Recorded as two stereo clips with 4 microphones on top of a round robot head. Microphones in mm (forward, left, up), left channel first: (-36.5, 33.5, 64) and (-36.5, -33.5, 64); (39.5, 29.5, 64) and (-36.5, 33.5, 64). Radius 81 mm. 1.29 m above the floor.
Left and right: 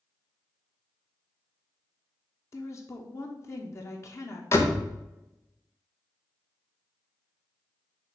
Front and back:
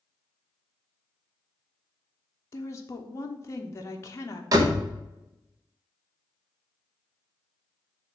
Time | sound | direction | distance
2.5 | a woman speaking | 45° left | 0.8 m
4.5 | a door slam | 140° left | 1.0 m